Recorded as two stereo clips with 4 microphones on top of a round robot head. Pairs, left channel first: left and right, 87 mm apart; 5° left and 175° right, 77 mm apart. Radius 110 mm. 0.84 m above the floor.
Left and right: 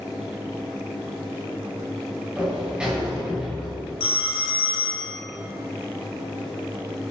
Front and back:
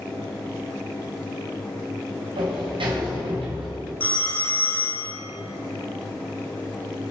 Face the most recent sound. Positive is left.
turn(degrees=75)